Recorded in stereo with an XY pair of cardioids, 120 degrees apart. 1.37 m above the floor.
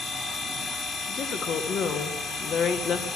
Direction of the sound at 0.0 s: 65° left.